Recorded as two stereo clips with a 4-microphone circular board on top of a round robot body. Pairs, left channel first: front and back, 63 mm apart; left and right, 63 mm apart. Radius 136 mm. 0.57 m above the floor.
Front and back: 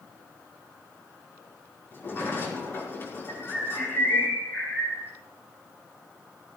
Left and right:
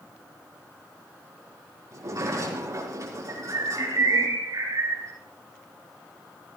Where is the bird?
55° right, 8 m.